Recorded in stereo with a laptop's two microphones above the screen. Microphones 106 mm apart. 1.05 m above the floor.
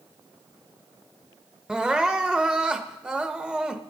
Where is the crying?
10° right (ahead or behind), 0.6 m.